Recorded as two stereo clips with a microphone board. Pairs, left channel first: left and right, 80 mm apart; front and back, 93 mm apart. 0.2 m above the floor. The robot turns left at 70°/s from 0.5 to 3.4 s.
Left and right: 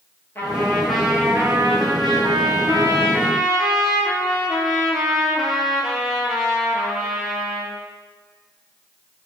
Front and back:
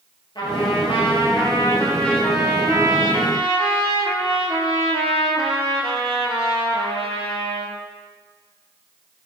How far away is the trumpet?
About 1.1 m.